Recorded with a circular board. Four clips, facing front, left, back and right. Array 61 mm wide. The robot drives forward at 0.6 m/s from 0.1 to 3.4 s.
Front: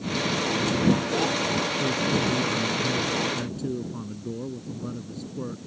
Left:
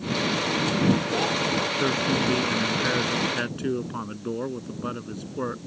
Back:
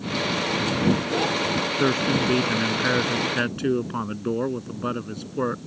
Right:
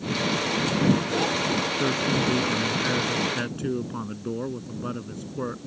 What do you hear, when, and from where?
1.8 s a man speaking: 170° left